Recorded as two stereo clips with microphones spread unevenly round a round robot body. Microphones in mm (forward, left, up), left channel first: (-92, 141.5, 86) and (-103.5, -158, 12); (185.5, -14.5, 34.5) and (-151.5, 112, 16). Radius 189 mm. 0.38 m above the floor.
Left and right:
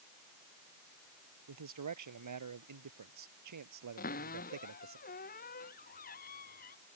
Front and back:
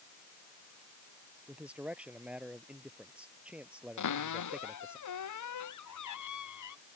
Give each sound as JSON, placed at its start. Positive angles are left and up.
{"t": 1.5, "sound": "a man speaking", "azimuth_deg": -115}
{"t": 4.0, "sound": "a cupboard door", "azimuth_deg": 20}